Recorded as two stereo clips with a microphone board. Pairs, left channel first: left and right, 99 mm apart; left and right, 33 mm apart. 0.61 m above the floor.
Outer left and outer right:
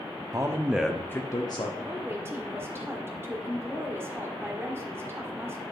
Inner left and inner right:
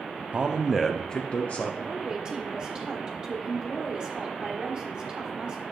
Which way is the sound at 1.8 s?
25° right (ahead or behind).